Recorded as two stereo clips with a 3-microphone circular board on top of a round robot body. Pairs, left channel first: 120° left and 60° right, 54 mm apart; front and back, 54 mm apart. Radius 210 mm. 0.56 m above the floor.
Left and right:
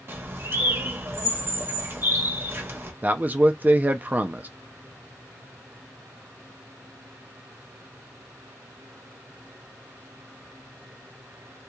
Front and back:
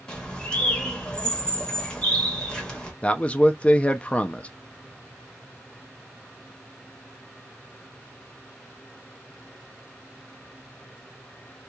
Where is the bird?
70° right, 1.2 m.